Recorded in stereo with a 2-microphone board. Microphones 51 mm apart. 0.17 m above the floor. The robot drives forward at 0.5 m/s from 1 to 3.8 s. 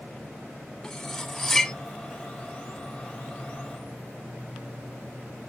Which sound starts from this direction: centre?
Cutlery clinking, at 0.8 s.